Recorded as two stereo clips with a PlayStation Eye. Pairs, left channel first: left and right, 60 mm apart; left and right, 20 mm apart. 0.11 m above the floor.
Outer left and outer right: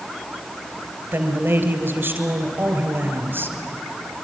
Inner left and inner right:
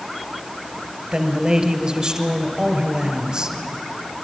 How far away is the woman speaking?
About 2 m.